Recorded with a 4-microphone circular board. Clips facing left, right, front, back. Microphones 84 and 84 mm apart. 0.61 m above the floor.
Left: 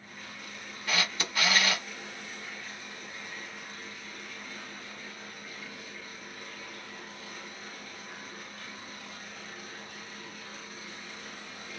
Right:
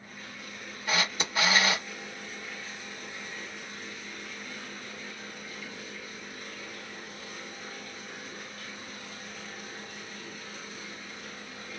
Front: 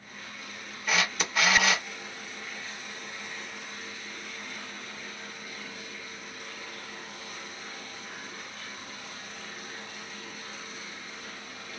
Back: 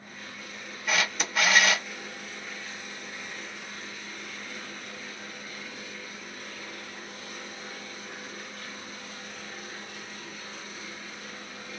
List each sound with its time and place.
0.9 s a camera shutter: 90° right, 0.8 m